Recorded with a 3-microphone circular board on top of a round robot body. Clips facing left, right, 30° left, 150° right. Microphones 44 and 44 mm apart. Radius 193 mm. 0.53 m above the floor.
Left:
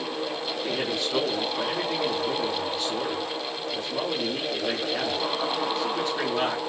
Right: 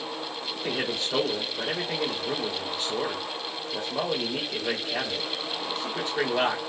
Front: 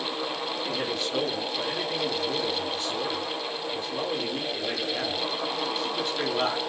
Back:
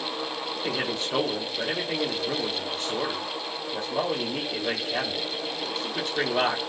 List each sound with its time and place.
0.6 s a man speaking: 165° right, 2.5 m